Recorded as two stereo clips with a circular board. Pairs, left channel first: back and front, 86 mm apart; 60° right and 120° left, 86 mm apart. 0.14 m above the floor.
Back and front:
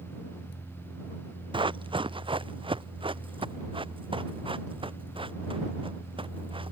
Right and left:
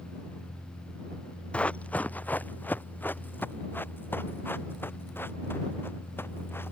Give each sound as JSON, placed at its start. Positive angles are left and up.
{"t": 1.5, "sound": "running footsteps", "azimuth_deg": 15}